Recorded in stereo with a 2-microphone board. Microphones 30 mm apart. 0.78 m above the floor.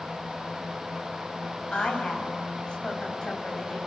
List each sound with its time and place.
1.7 s a woman speaking: 30° left (ahead or behind), 5 m